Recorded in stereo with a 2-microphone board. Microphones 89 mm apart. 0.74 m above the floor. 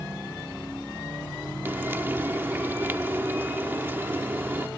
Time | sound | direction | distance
1.6 | frying | 25° right (ahead or behind) | ?